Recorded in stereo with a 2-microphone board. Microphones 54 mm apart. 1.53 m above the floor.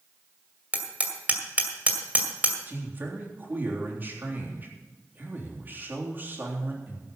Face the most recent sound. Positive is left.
turn(degrees=-40)  # may be behind; listen again after turning